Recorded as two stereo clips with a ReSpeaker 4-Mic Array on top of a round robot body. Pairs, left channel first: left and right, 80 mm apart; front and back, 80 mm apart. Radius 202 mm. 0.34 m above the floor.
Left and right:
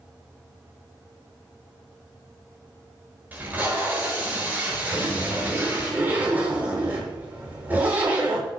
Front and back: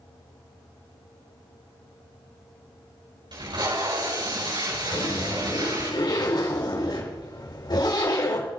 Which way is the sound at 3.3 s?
160° right.